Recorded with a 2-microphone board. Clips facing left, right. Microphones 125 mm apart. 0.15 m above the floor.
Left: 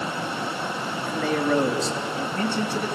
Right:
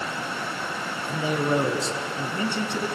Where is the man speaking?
15° right (ahead or behind), 2.5 m; by 3.0 s 20° right (ahead or behind), 1.6 m.